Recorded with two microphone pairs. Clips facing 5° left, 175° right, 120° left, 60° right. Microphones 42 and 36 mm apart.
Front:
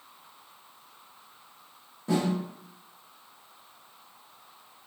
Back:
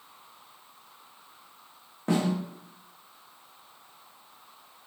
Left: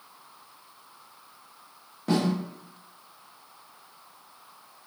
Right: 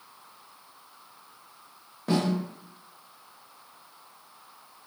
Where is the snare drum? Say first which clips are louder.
Back 1 dB, left 1 dB; 145° right, 1.2 m.